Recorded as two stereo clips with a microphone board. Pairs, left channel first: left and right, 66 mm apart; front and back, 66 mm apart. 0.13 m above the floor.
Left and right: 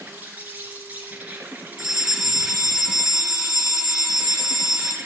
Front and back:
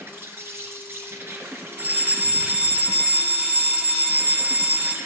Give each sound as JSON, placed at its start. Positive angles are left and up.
{"t": 0.0, "sound": "an insect", "azimuth_deg": -145, "distance_m": 2.5}
{"t": 1.8, "sound": "a fire alarm", "azimuth_deg": -160, "distance_m": 2.0}